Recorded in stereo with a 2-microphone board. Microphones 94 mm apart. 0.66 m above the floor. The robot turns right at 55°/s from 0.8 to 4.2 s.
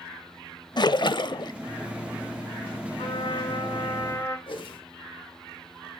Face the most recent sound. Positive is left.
turn(degrees=60)  # may be behind; listen again after turning